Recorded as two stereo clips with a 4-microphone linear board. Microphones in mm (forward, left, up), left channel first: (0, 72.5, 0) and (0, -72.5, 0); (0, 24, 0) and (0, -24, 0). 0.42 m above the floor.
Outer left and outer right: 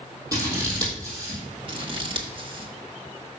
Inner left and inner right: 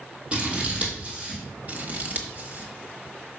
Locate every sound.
0.3 s scissors: 25° right (ahead or behind), 3 m
1.7 s scissors: 40° right (ahead or behind), 1.1 m